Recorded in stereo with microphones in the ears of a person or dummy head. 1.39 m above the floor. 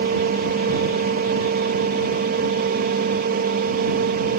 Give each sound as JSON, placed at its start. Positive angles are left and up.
{"t": 0.0, "sound": "a fan", "side_deg": -45}